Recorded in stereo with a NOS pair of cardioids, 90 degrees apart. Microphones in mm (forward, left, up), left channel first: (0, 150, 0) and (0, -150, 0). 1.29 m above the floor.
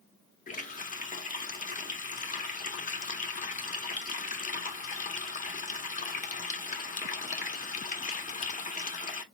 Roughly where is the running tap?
Ahead left.